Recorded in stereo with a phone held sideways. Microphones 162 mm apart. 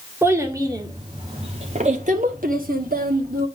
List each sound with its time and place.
0.2 s a child speaking: 15° right (ahead or behind), 1.9 m; by 3.5 s 70° right (ahead or behind), 1.7 m